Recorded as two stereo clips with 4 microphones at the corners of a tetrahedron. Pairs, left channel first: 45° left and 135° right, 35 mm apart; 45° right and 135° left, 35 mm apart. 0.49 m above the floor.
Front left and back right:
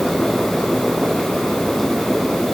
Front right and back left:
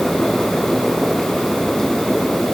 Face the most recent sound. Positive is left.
No sound to turn to.